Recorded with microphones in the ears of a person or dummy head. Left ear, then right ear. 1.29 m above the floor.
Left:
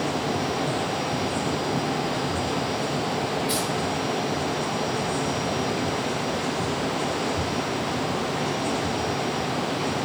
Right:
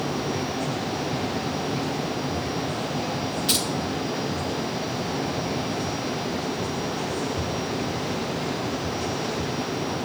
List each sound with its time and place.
3.5 s keys jangling: 45° right (ahead or behind), 1.7 m